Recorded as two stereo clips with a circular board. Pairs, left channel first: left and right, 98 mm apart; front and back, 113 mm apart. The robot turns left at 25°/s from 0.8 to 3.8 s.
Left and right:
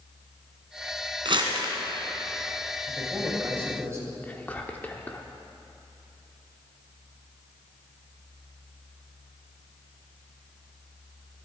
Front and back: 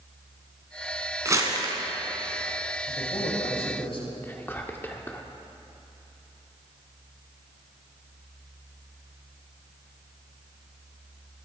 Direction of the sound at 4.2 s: 40° left.